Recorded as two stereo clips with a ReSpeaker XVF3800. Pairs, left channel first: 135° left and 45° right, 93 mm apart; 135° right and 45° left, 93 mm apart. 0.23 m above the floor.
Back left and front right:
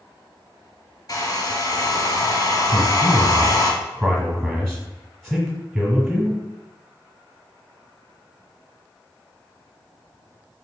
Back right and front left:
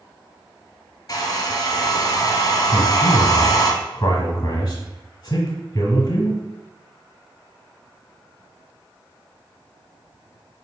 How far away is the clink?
No clink in this recording.